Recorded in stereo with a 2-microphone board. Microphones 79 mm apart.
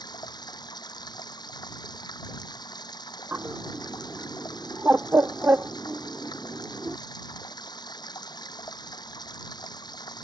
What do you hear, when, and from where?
0.0 s running water: 60° left (ahead or behind)
3.3 s a bird: 25° right (ahead or behind)